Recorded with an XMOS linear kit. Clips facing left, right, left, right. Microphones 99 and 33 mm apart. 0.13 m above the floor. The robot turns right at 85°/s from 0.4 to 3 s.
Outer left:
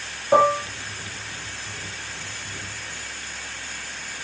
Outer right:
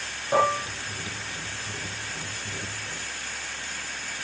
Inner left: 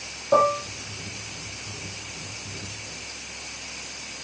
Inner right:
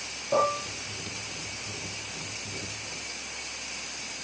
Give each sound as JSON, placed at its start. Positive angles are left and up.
{"t": 0.3, "sound": "dishes clattering", "side_deg": 20, "distance_m": 3.5}